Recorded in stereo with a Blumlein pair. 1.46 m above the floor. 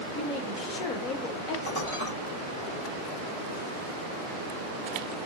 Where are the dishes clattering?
65° left, 3 m.